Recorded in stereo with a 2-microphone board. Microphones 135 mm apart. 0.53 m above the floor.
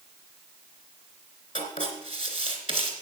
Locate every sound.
1.6 s writing: 65° left (ahead or behind), 3 m